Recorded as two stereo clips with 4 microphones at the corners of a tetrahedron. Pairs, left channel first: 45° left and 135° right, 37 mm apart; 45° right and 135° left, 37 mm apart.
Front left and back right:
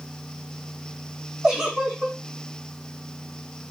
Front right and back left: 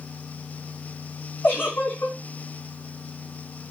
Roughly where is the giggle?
Ahead right.